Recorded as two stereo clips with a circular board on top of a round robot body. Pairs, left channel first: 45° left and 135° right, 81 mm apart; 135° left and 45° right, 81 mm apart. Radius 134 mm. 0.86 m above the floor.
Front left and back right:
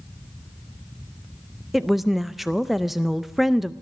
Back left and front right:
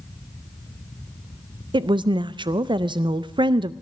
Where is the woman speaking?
45° right, 0.6 m.